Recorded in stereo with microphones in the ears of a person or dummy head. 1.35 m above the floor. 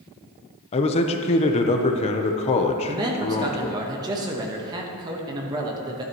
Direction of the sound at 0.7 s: 30° left (ahead or behind).